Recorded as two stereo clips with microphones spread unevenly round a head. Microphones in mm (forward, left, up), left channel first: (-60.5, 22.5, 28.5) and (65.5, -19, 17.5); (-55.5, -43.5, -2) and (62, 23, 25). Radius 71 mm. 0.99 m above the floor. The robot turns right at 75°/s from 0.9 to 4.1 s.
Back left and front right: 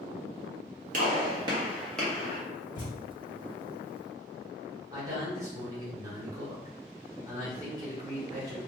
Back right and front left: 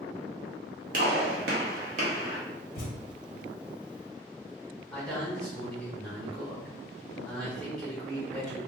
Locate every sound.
0.9 s a gunshot: straight ahead, 0.8 m; by 2.4 s 110° left, 0.8 m
2.8 s a thud: 150° right, 1.0 m; by 3.0 s 135° right, 1.0 m
4.9 s a man speaking: 75° right, 1.3 m